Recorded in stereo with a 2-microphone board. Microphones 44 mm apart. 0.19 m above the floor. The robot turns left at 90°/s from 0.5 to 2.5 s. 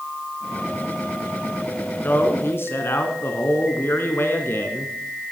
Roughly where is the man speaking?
Behind left.